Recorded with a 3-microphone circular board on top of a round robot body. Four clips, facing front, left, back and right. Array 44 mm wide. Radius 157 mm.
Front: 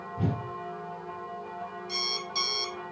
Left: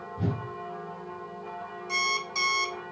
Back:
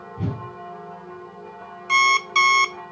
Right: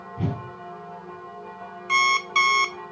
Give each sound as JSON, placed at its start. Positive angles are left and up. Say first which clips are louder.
{"t": 0.2, "sound": "a whoosh", "louder": "right 2 dB, back 1 dB", "azimuth_deg": -90, "distance_m": 4.0}
{"t": 1.9, "sound": "an alarm clock", "louder": "right 9 dB, back 21 dB", "azimuth_deg": -145, "distance_m": 0.5}